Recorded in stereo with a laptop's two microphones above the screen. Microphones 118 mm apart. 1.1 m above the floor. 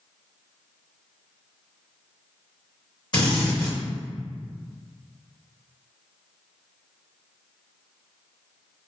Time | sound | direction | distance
3.1 | a drill | 40° left (ahead or behind) | 1.9 m